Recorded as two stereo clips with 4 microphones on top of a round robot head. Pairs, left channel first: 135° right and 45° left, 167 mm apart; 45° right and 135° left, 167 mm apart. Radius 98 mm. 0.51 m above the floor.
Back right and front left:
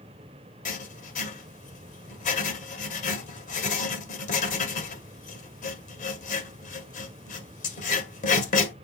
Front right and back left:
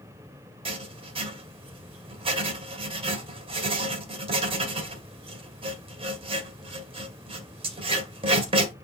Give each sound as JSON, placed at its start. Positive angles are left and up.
{"t": 0.7, "sound": "writing", "azimuth_deg": -170, "distance_m": 2.0}